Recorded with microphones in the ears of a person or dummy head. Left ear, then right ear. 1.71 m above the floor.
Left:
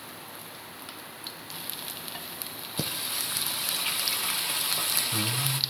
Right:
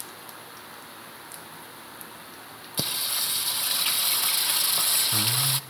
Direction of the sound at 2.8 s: 30° right (ahead or behind).